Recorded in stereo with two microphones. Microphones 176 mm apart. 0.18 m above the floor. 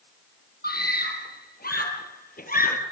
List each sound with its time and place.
0.6 s a scream: 65° left (ahead or behind), 5.5 m; by 2.8 s 55° left (ahead or behind), 3.5 m